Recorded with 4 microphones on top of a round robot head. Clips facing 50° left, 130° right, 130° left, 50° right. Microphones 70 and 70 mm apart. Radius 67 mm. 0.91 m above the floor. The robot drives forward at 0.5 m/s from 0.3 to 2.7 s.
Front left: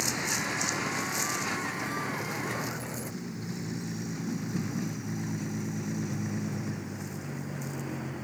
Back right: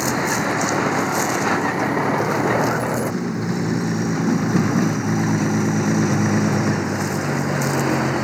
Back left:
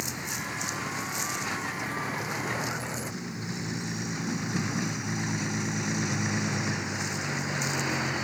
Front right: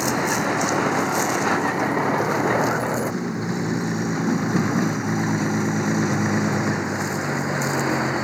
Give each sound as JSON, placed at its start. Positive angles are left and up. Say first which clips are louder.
{"t": 0.0, "sound": "a vehicle", "louder": "back right 12 dB, front right 14 dB", "azimuth_deg": -85}